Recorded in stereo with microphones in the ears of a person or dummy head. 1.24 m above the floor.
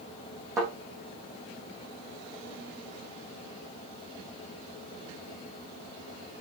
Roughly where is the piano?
No piano in this recording.